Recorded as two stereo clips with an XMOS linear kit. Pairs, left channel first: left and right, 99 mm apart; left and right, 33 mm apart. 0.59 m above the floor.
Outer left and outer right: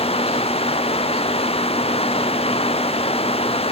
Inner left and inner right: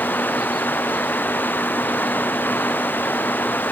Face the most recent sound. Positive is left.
turn(degrees=80)